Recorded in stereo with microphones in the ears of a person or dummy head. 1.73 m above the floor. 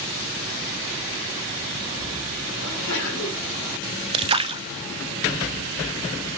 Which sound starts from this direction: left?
A sneeze, at 2.6 s.